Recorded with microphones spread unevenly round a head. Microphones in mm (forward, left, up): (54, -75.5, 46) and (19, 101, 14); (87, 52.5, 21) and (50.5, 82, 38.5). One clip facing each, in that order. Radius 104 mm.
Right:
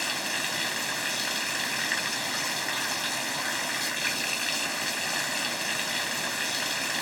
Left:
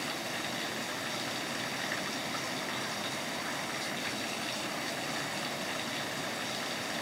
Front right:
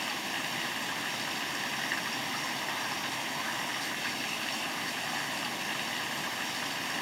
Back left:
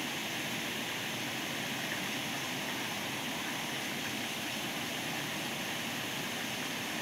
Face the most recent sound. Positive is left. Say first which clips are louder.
# right 2 dB, front right 3 dB
turn(degrees=-110)